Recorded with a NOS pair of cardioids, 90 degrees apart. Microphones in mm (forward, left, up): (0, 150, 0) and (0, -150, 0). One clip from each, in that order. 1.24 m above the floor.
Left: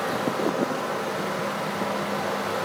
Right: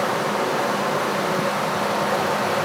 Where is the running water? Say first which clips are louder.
Right 4 dB; 45° right, 0.9 m.